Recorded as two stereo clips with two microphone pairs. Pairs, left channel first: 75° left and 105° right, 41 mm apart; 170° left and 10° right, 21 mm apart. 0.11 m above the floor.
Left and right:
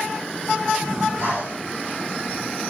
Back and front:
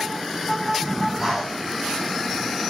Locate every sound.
0.8 s breathing: 70° right, 5.5 m